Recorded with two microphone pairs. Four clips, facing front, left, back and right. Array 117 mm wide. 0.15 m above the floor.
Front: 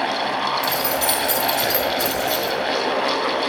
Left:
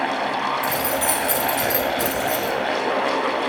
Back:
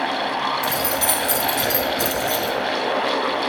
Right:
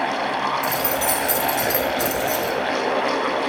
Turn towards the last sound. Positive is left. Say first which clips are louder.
# even, front 1 dB
turn(degrees=140)